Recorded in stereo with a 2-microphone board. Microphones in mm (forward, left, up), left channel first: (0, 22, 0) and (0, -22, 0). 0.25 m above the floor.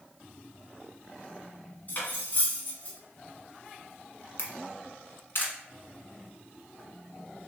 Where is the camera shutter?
55° left (ahead or behind), 1.1 m.